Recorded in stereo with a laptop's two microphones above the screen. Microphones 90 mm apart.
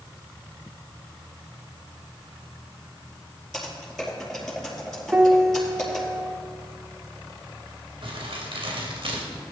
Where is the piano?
15° right (ahead or behind), 0.7 m.